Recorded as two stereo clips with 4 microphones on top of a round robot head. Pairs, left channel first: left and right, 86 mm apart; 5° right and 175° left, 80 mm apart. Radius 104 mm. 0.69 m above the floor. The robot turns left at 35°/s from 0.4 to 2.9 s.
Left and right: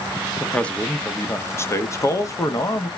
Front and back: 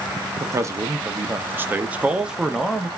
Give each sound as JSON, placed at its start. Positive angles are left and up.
{"t": 0.4, "sound": "a man speaking", "azimuth_deg": 165, "distance_m": 0.7}